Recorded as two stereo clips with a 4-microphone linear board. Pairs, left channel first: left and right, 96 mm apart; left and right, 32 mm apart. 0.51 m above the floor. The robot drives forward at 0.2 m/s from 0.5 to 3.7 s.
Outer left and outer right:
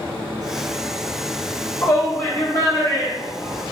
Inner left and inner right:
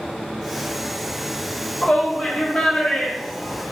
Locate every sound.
1.8 s a shout: 20° left (ahead or behind), 0.8 m